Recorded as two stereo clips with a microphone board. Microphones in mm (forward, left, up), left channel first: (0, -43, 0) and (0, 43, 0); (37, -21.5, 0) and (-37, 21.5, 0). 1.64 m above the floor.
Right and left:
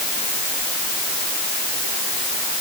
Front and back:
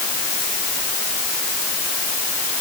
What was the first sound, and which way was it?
Only background noise.